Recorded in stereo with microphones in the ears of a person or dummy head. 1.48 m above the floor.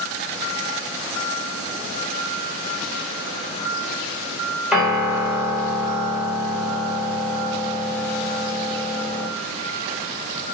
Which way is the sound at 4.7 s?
5° right (ahead or behind).